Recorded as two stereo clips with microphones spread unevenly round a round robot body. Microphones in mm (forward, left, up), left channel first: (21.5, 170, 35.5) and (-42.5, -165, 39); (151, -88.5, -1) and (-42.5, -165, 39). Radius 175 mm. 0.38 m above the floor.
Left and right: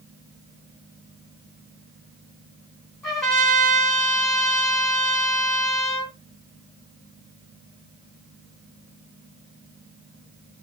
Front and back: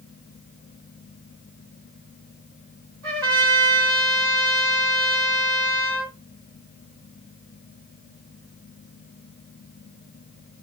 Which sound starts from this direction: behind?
A trumpet, at 3.0 s.